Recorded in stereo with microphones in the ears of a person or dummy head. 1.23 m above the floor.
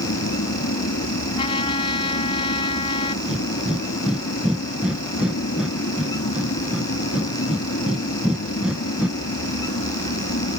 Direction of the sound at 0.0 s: 55° left (ahead or behind).